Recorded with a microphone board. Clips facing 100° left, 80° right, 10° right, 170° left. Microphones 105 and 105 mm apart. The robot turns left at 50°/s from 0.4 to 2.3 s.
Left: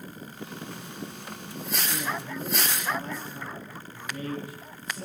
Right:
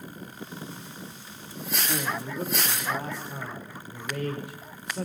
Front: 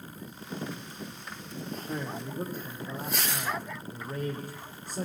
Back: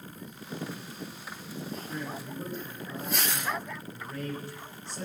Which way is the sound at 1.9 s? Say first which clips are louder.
Right 3 dB, front 2 dB; 30° right.